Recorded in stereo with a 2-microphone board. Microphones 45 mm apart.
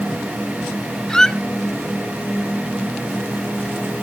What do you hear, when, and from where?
1.1 s a squeak: 10° left (ahead or behind), 0.8 m